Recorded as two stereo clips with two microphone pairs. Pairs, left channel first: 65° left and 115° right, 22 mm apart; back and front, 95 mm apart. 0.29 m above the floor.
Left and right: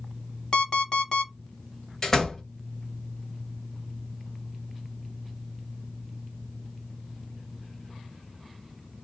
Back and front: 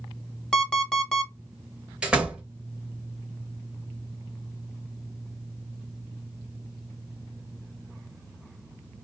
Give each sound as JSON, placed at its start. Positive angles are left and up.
{"t": 0.5, "sound": "an alarm clock", "azimuth_deg": 105, "distance_m": 0.8}
{"t": 2.0, "sound": "a door slam", "azimuth_deg": 65, "distance_m": 0.9}